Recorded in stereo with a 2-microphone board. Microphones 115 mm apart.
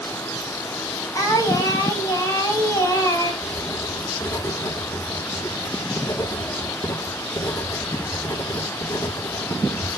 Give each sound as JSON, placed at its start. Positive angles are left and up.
{"t": 1.1, "sound": "singing", "side_deg": 30, "distance_m": 2.5}
{"t": 3.4, "sound": "writing", "side_deg": 30, "distance_m": 1.5}